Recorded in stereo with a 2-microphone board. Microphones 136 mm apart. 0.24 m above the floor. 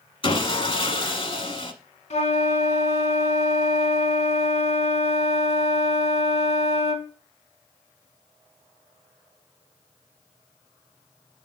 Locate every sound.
0.2 s sawing: 40° left (ahead or behind), 0.7 m
2.1 s a flute: 55° left (ahead or behind), 0.9 m